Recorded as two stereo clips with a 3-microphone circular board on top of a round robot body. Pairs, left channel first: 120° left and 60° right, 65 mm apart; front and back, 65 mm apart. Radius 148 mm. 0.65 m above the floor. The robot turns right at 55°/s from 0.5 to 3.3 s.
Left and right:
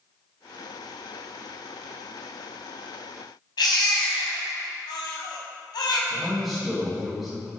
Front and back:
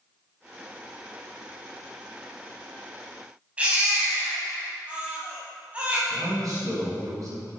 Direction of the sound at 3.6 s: 110° left.